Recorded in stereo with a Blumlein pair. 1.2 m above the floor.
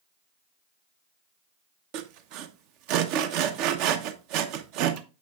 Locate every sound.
1.9 s sawing: 40° right, 0.9 m